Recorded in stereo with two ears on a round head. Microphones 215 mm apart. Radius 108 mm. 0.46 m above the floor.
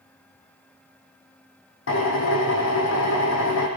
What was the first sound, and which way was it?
A drill, 55° left (ahead or behind).